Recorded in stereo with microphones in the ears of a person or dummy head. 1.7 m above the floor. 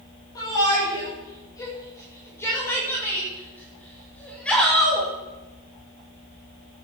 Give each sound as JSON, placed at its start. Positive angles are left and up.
{"t": 0.3, "sound": "a shout", "side_deg": 20, "distance_m": 8.0}